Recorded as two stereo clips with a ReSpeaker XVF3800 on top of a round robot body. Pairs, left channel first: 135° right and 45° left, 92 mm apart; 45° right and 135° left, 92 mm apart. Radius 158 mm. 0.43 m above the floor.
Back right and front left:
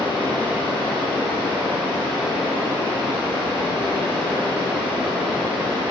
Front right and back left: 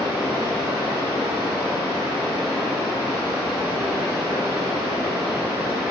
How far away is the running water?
About 1.8 m.